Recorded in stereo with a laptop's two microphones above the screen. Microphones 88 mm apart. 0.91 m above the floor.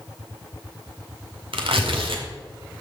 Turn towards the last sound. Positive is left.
turn(degrees=-90)